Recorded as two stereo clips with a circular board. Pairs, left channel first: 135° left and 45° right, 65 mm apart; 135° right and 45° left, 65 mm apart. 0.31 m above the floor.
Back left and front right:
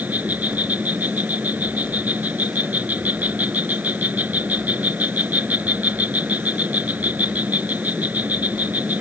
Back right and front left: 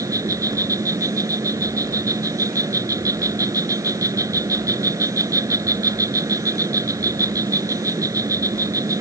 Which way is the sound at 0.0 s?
20° left.